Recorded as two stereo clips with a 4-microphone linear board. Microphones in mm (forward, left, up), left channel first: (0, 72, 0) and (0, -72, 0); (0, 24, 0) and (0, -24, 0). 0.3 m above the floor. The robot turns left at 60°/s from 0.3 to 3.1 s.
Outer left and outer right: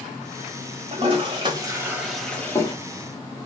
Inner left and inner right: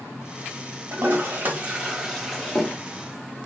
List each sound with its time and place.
0.9 s a toilet flushing: 45° right (ahead or behind), 1.0 m; by 2.7 s 25° left (ahead or behind), 1.0 m